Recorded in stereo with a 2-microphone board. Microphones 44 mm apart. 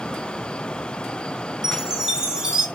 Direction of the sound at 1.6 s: 15° right (ahead or behind).